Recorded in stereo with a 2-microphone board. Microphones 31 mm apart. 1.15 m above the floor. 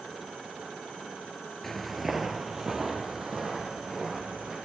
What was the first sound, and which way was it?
Footsteps, 10° left (ahead or behind).